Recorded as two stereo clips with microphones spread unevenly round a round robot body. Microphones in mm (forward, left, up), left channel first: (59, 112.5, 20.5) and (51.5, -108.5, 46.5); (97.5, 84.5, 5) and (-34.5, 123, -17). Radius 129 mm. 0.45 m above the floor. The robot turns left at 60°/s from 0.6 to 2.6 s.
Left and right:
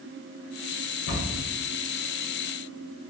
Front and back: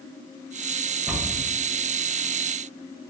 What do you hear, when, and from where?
1.1 s a cupboard door: 85° left, 1.4 m; by 1.4 s 60° left, 1.4 m